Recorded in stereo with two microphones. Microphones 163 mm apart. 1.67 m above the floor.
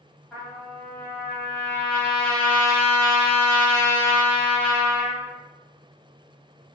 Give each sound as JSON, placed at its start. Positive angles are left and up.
{"t": 0.3, "sound": "a trumpet", "side_deg": 10, "distance_m": 1.2}